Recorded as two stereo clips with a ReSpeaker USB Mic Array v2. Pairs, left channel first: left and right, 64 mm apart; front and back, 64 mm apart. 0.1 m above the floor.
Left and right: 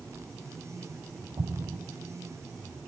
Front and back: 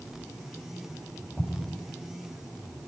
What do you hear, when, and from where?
1.4 s an explosion: 75° right, 6.5 m